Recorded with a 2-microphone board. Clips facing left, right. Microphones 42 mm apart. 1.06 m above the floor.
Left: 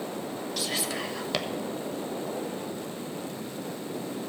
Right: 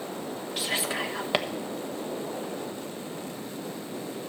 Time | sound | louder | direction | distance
0.6 | whispering | right 3 dB | 25° right (ahead or behind) | 1.1 m